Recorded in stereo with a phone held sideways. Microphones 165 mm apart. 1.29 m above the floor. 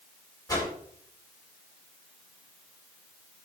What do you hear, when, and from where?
0.5 s a whoosh: 20° left (ahead or behind), 2.5 m